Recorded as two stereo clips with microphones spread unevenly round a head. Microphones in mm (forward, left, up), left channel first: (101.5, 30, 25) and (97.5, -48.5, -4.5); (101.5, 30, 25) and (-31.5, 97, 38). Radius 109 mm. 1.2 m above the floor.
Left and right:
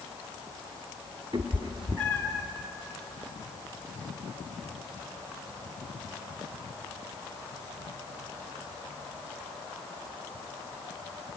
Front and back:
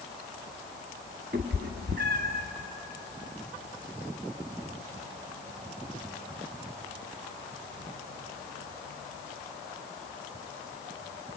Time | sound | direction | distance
1.3 | a cat meowing | 175° right | 1.3 m